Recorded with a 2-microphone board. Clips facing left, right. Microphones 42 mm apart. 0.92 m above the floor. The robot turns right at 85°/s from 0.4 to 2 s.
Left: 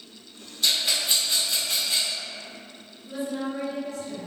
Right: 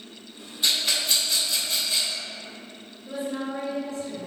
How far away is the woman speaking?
About 1.7 m.